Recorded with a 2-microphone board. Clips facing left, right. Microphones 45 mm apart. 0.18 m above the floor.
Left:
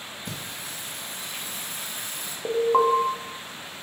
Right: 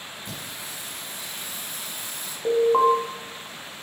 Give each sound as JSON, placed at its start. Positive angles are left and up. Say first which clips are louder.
{"t": 0.2, "sound": "singing", "louder": "left 1 dB", "side_deg": 55, "distance_m": 2.5}
{"t": 2.5, "sound": "an alarm", "louder": "right 2 dB", "side_deg": 10, "distance_m": 0.8}